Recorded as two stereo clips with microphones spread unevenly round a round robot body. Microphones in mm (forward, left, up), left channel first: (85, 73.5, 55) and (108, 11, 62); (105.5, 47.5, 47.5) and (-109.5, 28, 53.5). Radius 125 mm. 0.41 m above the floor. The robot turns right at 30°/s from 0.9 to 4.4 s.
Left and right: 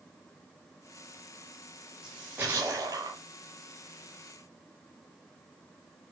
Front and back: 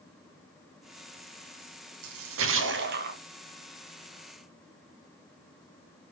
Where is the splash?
155° right, 2 m; by 3.2 s 120° right, 2 m.